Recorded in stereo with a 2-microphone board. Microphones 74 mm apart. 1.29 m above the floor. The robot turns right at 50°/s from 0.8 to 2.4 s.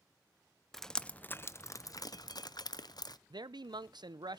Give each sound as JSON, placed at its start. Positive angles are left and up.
{"t": 0.7, "sound": "dripping", "side_deg": 5, "distance_m": 0.6}
{"t": 3.3, "sound": "a man speaking", "side_deg": -70, "distance_m": 0.6}